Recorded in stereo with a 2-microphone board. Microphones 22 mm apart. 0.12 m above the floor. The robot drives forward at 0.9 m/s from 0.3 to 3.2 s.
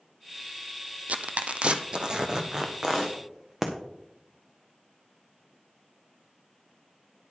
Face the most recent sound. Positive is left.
turn(degrees=-20)  # may be behind; listen again after turning